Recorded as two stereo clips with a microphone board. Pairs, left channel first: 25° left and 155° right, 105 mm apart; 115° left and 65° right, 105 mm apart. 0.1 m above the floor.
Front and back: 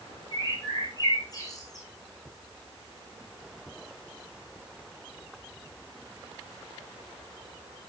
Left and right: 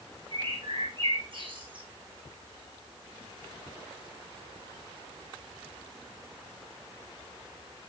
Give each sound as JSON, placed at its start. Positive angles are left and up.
{"t": 0.3, "sound": "a bird", "azimuth_deg": -30, "distance_m": 4.5}